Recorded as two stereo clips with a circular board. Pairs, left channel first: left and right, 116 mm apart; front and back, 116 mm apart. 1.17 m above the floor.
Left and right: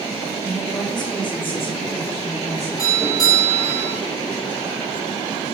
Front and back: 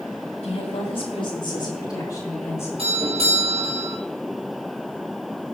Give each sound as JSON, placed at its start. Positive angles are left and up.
{"t": 0.4, "sound": "a woman speaking", "azimuth_deg": 25, "distance_m": 2.5}
{"t": 2.8, "sound": "a doorbell", "azimuth_deg": 150, "distance_m": 4.0}